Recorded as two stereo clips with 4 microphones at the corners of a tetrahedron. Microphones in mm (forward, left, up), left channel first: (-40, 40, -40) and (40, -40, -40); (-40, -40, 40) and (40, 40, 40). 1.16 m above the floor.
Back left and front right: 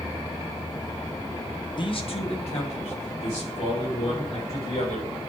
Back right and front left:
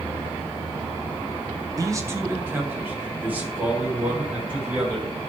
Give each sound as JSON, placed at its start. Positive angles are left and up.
{"t": 1.8, "sound": "a man speaking", "azimuth_deg": 100, "distance_m": 0.9}